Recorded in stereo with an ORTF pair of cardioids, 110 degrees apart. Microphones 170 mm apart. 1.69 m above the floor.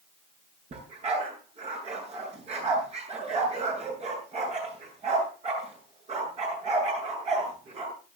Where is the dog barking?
40° right, 8.5 m.